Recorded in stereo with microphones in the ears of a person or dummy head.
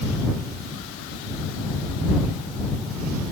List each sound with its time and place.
Only background noise.